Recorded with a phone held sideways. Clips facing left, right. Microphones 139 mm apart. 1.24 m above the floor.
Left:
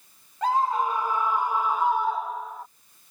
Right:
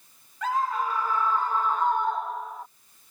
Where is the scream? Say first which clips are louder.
Left 3 dB; 35° left (ahead or behind); by 2.7 s centre (ahead or behind).